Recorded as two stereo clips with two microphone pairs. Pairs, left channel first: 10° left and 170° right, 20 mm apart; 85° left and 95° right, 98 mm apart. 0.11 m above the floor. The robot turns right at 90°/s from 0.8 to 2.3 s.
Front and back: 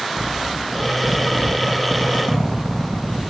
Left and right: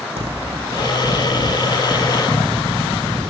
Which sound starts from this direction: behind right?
A zipper, at 0.2 s.